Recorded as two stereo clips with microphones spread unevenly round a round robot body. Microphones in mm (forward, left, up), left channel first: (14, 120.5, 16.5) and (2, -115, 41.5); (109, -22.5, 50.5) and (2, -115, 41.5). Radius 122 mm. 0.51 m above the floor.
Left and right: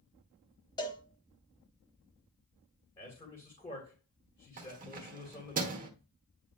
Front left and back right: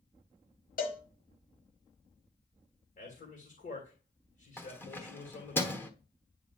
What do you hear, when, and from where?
0.8 s a cowbell: 15° left, 1.4 m
3.0 s a man speaking: 20° left, 2.5 m
4.6 s keys jangling: 35° right, 1.2 m